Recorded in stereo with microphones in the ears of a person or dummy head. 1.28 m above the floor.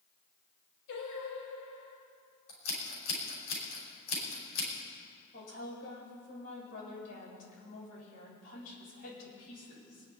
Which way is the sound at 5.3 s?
45° left (ahead or behind).